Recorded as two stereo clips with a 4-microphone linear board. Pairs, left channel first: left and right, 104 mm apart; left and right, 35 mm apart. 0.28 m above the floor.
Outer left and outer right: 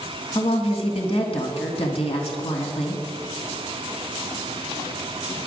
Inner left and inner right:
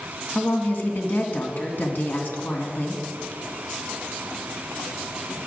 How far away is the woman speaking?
About 2.5 m.